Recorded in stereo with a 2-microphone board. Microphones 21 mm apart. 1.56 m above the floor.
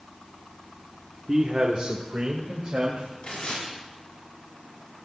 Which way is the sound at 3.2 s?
70° left (ahead or behind).